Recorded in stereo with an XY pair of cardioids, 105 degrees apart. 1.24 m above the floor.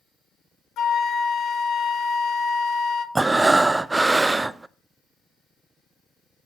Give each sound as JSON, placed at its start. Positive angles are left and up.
{"t": 0.8, "sound": "a flute", "azimuth_deg": 65, "distance_m": 1.2}
{"t": 3.1, "sound": "breathing", "azimuth_deg": -20, "distance_m": 0.5}